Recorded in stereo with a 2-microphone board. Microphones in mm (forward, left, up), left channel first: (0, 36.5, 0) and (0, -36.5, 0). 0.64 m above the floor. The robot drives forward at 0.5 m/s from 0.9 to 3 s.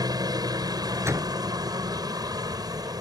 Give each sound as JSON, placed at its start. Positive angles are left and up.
{"t": 0.0, "sound": "a helicopter", "side_deg": -60}
{"t": 1.0, "sound": "a door slam", "side_deg": -40}